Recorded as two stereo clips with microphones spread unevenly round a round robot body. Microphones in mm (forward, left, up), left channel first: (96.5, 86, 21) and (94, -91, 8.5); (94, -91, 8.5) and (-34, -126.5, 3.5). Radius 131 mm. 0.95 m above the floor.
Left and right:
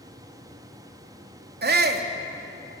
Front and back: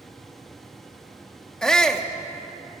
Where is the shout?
70° right, 2.0 m.